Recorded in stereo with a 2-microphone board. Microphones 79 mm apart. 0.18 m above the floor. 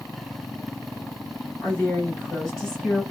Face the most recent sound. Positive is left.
turn(degrees=0)  # may be behind; listen again after turning